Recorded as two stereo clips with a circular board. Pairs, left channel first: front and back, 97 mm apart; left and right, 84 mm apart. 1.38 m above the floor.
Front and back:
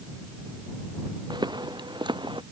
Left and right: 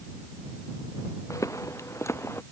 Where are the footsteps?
140° left; by 2.4 s 145° left.